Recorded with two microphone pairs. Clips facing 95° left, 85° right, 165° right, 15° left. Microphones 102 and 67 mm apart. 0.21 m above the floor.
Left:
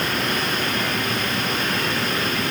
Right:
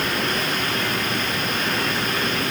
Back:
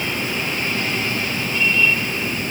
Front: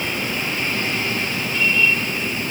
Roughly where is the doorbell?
I don't hear a doorbell.